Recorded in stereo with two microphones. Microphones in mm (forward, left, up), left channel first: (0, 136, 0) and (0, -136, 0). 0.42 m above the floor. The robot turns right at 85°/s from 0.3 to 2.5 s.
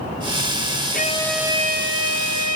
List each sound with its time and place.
0.9 s a violin: 145° left; by 2.6 s 80° right